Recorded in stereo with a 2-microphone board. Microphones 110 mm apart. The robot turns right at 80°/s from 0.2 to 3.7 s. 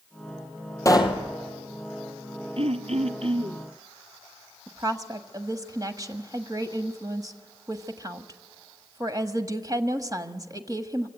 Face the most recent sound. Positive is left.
turn(degrees=-35)  # may be behind; listen again after turning